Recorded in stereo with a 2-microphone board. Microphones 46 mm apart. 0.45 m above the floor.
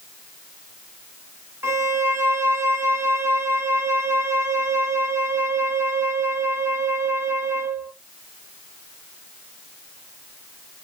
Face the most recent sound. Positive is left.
turn(degrees=-85)